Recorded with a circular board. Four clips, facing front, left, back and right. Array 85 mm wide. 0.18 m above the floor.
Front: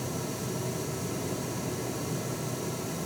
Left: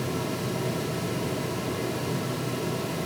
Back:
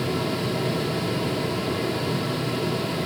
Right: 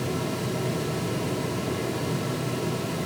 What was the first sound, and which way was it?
Only background noise.